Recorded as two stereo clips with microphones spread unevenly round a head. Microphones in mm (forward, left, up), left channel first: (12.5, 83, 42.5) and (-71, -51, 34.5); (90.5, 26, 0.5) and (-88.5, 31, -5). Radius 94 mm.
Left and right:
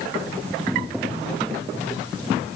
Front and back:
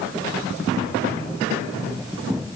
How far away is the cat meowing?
No cat meowing in this recording.